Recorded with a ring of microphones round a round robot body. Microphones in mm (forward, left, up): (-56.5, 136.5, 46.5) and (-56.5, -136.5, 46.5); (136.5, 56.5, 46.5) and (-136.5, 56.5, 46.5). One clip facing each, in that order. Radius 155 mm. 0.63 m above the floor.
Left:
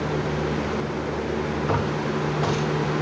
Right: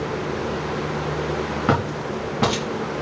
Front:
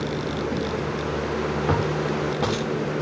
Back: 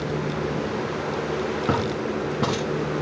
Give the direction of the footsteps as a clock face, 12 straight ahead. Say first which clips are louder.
Right 1 dB, front 1 dB; 3 o'clock.